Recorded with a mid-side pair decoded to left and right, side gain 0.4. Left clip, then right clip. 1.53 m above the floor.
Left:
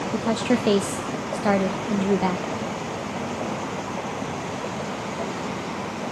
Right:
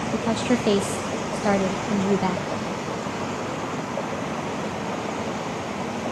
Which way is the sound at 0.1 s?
10° left.